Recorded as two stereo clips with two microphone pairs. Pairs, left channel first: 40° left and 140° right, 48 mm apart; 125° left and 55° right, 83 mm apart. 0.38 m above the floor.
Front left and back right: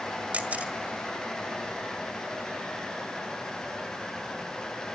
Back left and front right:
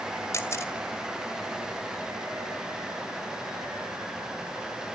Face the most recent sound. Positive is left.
turn(degrees=170)